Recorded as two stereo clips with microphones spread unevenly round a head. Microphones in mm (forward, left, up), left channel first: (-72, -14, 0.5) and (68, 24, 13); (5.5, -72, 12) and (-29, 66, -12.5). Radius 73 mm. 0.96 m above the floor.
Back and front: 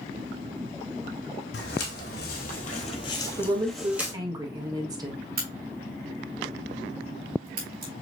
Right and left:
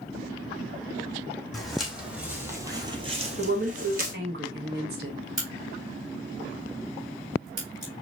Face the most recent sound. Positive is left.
turn(degrees=45)